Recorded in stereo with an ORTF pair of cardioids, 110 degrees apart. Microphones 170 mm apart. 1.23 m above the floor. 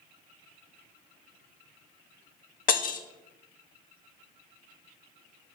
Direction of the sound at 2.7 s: 55° left.